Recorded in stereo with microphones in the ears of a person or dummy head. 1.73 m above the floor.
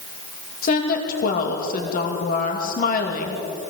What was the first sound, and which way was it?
A woman speaking, 50° left (ahead or behind).